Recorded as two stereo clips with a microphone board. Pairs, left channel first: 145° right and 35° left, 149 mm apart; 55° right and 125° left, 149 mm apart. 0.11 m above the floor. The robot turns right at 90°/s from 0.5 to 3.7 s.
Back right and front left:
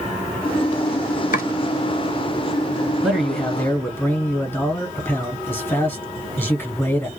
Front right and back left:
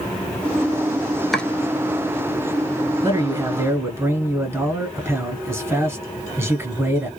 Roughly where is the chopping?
Behind right.